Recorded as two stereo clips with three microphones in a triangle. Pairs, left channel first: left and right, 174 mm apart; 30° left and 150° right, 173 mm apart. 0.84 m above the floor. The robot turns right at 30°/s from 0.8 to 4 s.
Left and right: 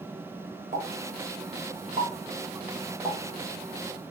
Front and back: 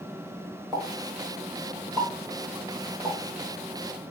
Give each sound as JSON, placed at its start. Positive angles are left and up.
{"t": 0.7, "sound": "a pop", "azimuth_deg": -75, "distance_m": 1.6}